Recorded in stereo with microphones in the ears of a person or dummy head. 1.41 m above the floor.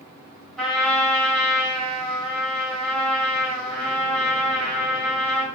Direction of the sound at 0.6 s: 5° right (ahead or behind).